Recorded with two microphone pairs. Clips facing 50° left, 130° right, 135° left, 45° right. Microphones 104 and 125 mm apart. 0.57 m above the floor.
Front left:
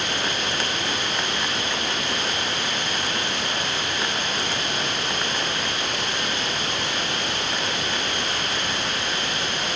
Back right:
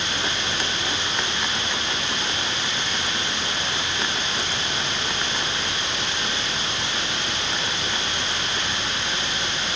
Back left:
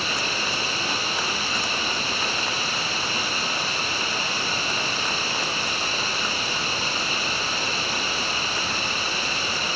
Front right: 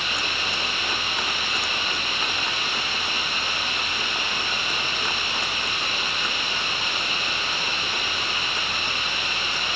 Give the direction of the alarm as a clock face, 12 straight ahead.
I don't hear an alarm.